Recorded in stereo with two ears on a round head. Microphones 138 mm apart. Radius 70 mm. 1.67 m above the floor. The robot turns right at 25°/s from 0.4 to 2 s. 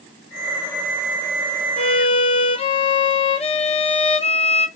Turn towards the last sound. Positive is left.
turn(degrees=40)  # may be behind; listen again after turning